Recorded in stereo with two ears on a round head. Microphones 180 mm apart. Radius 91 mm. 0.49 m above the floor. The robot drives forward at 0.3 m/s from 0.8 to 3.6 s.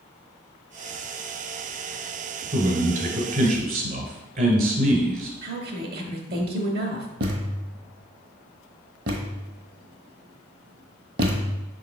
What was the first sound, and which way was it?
A man speaking, 45° right (ahead or behind).